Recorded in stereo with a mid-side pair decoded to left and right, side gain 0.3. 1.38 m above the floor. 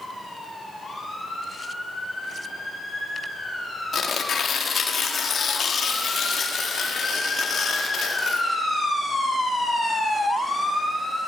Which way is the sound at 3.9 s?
65° left.